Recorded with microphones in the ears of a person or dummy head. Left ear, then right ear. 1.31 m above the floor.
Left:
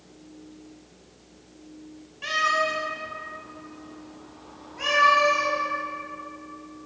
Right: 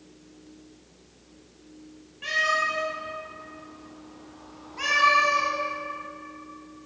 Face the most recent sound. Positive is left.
turn(degrees=-45)  # may be behind; listen again after turning